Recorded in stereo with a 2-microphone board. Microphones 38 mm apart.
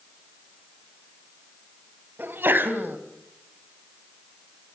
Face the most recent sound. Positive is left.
turn(degrees=-60)  # may be behind; listen again after turning